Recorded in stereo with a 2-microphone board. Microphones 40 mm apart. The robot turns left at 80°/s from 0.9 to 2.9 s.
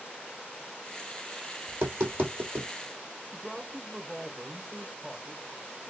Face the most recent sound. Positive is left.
turn(degrees=10)  # may be behind; listen again after turning